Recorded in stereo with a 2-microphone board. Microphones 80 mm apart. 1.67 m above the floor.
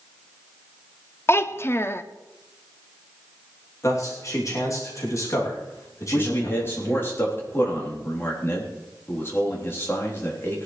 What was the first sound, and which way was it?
A child speaking, 35° left (ahead or behind).